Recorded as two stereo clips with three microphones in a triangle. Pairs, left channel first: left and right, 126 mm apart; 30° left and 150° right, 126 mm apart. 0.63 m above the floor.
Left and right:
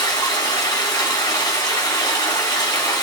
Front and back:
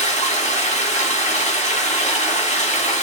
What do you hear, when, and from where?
0.0 s running water: 30° left, 3.5 m